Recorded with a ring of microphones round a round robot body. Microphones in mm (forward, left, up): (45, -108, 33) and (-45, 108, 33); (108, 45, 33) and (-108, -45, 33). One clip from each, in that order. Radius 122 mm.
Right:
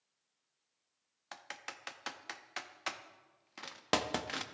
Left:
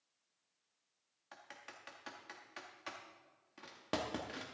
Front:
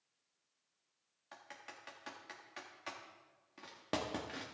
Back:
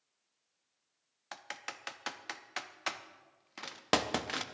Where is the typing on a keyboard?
115° right, 0.7 m.